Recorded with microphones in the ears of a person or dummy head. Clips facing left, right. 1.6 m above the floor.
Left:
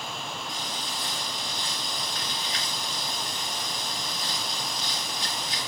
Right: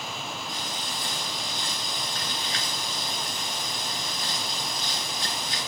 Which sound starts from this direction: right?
Frying, at 0.5 s.